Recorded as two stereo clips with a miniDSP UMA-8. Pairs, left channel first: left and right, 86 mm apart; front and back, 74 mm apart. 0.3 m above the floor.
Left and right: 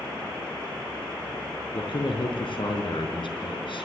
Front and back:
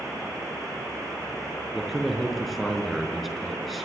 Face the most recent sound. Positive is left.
turn(degrees=90)